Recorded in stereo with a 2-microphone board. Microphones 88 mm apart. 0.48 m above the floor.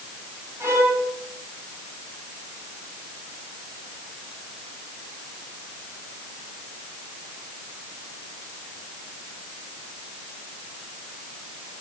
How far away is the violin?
About 3 m.